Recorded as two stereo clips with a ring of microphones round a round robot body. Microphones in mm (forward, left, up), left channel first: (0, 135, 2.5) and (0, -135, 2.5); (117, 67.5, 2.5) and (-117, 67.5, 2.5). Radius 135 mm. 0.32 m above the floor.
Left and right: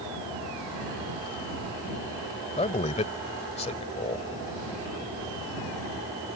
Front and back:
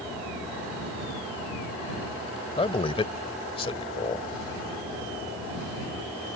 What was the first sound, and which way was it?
A man speaking, 45° left.